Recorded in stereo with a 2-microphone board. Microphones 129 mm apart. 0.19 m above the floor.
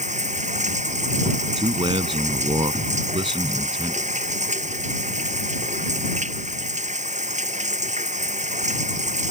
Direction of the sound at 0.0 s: 80° right.